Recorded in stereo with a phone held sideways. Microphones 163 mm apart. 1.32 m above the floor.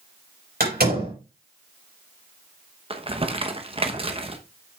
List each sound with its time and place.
0.6 s a door slam: 75° right (ahead or behind), 5.5 m
2.9 s crumpling: 35° right (ahead or behind), 0.9 m